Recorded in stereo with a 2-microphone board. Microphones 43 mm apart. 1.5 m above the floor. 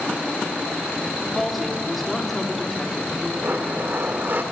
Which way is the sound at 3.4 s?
50° right (ahead or behind).